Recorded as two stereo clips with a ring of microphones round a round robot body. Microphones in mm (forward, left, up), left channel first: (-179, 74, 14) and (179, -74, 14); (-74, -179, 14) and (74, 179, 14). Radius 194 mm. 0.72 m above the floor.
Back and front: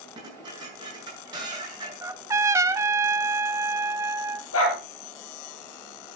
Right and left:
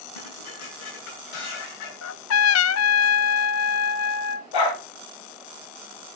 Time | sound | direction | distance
0.1 | dishes clattering | 100° right | 7.5 m
2.0 | a trumpet | 100° right | 0.5 m
4.5 | a dog barking | 145° right | 6.5 m